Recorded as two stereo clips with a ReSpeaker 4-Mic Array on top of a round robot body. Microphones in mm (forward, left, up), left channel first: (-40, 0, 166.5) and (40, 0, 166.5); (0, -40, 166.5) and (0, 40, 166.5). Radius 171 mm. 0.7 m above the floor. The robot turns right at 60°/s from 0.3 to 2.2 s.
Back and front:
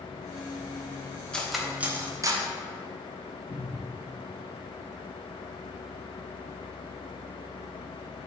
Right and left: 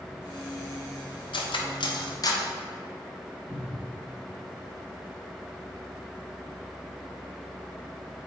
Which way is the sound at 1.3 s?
100° right.